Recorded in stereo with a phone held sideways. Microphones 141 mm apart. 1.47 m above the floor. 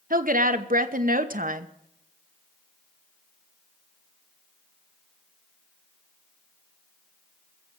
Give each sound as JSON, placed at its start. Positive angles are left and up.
{"t": 0.1, "sound": "a woman speaking", "side_deg": -85, "distance_m": 1.0}